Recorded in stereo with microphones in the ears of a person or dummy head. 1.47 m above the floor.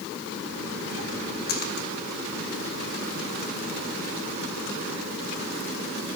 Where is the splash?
50° left (ahead or behind), 1.0 m.